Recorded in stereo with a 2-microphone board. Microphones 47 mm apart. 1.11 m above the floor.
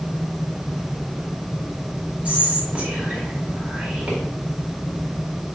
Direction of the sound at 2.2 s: 25° right (ahead or behind).